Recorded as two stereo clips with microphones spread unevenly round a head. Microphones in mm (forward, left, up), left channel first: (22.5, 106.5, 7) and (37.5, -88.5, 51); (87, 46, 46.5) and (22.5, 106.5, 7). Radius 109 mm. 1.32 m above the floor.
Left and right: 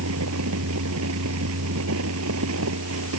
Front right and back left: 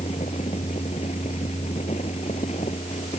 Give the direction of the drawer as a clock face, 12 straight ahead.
I don't hear a drawer.